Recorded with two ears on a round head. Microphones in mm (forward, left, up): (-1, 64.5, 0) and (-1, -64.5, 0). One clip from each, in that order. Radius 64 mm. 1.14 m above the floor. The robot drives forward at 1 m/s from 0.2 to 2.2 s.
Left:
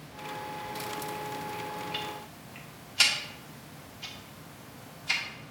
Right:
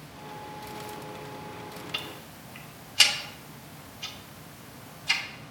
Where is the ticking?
20° right (ahead or behind), 0.6 m; by 5.2 s 15° right (ahead or behind), 0.8 m.